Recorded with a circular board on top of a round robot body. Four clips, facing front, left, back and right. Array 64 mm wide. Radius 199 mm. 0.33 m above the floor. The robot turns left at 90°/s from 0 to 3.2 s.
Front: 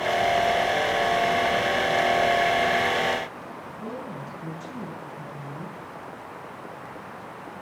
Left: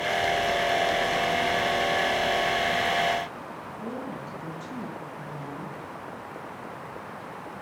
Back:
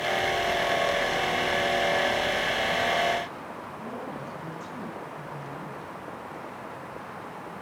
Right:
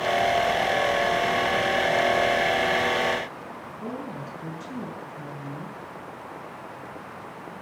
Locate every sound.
3.8 s a woman speaking: 65° right, 8 m